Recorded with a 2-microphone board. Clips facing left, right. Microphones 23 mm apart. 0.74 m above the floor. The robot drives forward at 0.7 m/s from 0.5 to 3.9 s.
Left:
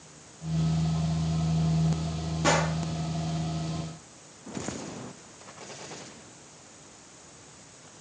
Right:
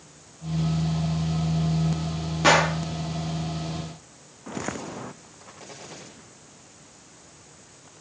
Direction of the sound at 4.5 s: 35° right (ahead or behind).